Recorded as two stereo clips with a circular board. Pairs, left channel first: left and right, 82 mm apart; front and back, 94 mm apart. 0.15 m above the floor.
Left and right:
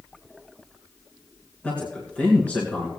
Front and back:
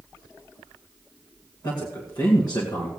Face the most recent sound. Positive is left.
turn(degrees=20)